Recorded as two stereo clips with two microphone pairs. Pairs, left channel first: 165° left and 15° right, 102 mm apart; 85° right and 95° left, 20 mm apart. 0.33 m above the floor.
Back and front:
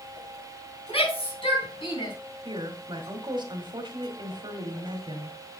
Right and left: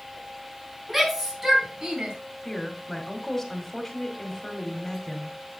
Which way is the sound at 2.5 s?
20° right.